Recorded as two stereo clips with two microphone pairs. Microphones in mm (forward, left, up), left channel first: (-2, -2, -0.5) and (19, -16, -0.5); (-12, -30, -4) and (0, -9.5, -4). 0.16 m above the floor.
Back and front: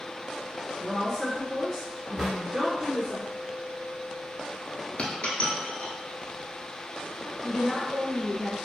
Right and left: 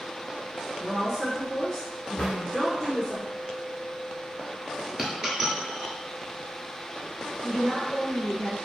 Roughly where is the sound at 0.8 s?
Behind.